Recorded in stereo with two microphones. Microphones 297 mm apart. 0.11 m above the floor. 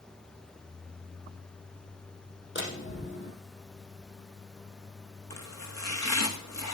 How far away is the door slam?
About 2.5 m.